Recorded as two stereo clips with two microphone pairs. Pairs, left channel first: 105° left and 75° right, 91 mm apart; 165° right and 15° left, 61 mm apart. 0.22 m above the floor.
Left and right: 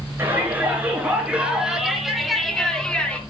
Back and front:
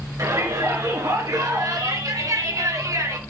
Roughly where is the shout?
Ahead.